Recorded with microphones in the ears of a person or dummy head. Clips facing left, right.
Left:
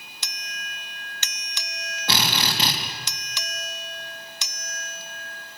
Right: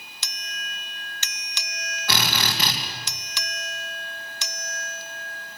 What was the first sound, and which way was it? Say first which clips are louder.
A drill: left 1 dB; 25° left (ahead or behind).